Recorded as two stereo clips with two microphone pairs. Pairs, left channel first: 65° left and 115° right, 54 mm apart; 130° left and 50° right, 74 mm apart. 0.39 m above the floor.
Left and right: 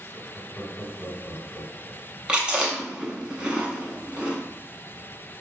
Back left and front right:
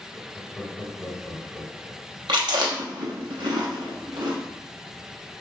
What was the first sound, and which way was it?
Laughter, 65° left.